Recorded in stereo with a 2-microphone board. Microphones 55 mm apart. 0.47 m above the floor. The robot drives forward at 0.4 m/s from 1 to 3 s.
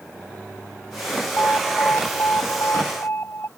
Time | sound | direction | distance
1.4 | an alarm | 40° left (ahead or behind) | ?